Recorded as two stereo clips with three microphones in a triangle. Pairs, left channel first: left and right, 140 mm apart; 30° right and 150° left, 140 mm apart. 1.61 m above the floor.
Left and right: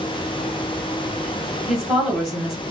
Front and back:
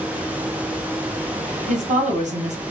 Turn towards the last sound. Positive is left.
turn(degrees=180)